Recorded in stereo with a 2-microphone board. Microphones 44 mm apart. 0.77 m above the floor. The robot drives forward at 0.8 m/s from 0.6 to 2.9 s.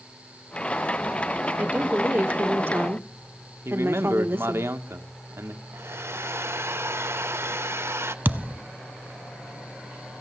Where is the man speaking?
70° right (ahead or behind), 1.5 m.